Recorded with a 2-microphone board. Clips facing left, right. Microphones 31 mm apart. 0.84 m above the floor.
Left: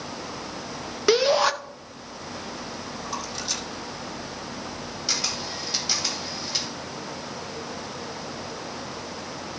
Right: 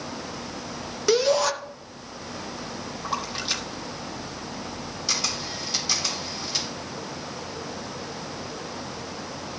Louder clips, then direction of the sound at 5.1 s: Even; 10° left (ahead or behind).